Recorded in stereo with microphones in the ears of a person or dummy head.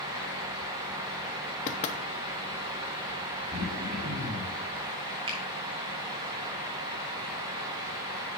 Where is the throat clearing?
40° right (ahead or behind), 4 m.